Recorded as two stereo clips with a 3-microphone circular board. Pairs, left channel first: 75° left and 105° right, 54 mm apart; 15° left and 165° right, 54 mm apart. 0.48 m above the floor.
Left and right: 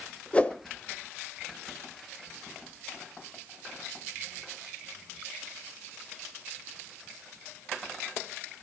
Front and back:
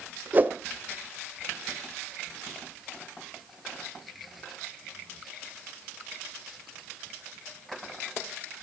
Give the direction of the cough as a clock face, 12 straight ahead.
I don't hear a cough.